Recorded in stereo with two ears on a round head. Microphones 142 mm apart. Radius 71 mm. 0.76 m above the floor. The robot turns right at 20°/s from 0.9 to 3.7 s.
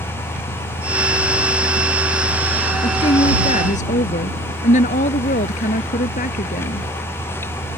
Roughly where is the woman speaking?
Left.